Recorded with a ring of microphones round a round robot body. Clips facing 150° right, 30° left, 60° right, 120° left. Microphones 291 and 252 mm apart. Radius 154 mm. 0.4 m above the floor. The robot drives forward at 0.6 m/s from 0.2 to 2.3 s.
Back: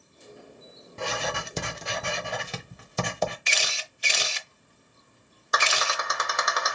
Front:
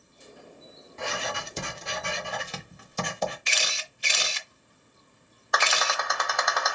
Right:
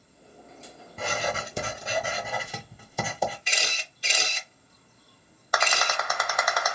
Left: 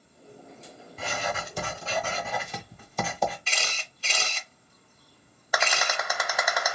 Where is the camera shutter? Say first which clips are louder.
Back 1 dB, right 1 dB; 135° right, 0.7 m.